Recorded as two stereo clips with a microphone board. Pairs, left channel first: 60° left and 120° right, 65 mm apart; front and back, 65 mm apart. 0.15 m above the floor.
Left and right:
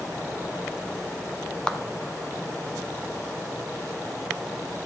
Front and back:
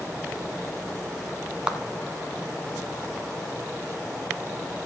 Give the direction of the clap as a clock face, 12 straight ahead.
8 o'clock.